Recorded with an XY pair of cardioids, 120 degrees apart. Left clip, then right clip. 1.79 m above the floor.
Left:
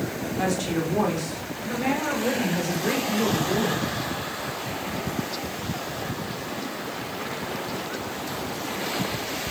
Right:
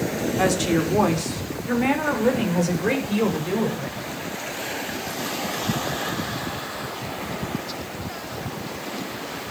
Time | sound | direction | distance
0.4 | a woman speaking | 35° right | 4.5 m